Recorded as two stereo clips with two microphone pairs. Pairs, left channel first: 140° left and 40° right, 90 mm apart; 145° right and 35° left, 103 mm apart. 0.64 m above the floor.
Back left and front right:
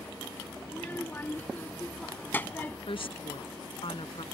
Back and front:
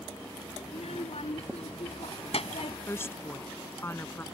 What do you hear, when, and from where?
0.7 s a child speaking: 150° right; by 2.8 s 155° right
2.9 s a woman speaking: 145° left